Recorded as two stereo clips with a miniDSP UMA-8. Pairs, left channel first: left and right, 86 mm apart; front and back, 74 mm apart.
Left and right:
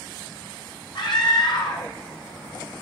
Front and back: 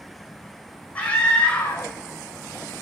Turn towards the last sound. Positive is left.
turn(degrees=70)